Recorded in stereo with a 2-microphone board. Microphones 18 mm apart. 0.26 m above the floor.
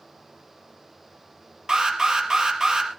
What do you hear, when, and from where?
1.7 s an alarm: 40° right (ahead or behind), 3.5 m